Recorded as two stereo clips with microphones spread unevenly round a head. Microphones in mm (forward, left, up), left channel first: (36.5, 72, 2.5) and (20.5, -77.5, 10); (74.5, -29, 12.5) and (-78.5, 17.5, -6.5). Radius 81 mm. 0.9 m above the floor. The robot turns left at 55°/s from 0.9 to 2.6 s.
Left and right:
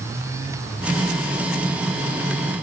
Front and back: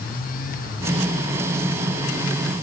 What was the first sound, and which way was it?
Only background noise.